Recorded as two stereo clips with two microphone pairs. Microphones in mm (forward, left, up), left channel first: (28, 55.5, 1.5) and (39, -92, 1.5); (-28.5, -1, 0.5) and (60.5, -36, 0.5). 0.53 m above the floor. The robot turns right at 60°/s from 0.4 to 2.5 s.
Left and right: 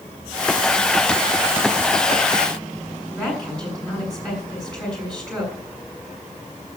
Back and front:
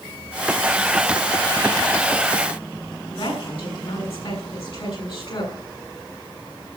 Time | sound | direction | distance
3.1 | a woman speaking | straight behind | 6 m